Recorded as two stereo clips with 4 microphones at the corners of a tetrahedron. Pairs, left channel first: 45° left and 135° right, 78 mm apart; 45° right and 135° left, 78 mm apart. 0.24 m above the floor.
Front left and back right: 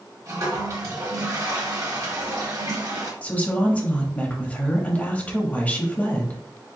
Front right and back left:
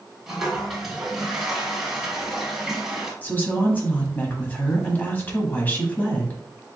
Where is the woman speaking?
5° right, 1.0 m.